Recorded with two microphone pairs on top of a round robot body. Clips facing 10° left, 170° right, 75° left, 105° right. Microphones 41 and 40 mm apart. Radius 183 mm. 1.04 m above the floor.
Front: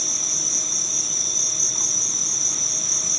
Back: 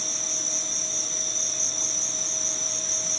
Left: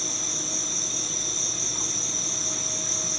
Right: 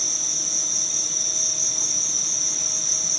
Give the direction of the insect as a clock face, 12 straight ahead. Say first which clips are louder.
Front 2 dB, left 1 dB; 11 o'clock.